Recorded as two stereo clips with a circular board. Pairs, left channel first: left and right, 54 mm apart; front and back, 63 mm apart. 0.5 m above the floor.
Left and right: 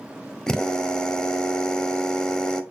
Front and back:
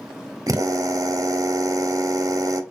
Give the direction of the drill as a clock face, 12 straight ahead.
6 o'clock.